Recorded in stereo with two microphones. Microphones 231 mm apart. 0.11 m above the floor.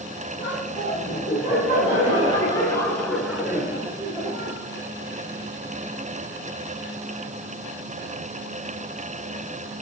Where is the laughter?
30° left (ahead or behind), 3.5 m; by 4.6 s 25° right (ahead or behind), 2 m.